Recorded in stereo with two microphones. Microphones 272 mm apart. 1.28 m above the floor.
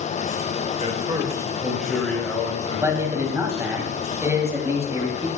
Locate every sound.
0.8 s a man speaking: 25° right (ahead or behind), 2 m; by 3.8 s 25° left (ahead or behind), 4 m
2.8 s a man speaking: 10° right (ahead or behind), 2.5 m